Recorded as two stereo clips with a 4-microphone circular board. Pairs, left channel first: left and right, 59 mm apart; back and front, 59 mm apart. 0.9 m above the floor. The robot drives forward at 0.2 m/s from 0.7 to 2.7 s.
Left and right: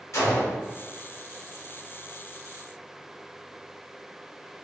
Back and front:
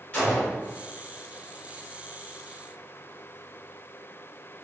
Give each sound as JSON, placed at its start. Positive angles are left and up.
{"t": 0.1, "sound": "a gunshot", "azimuth_deg": 115, "distance_m": 1.2}